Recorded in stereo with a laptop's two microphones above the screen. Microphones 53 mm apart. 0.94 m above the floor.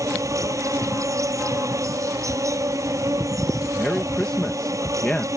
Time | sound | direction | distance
0.0 | an insect | 75° right (ahead or behind) | ?
3.8 | a man speaking | 15° left (ahead or behind) | ?